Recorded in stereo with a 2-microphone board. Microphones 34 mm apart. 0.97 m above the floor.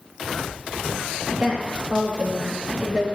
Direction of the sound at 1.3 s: 35° right (ahead or behind).